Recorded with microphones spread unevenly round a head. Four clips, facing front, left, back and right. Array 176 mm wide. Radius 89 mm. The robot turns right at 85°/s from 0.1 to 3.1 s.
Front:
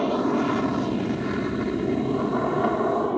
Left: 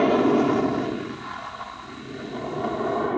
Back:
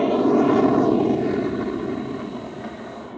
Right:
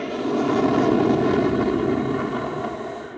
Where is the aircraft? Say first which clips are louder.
Left 4 dB, back 5 dB; 150° left; by 3.2 s 40° left.